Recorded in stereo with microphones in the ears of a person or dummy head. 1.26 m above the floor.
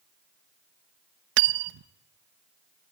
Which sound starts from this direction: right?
Cutlery clinking, at 1.4 s.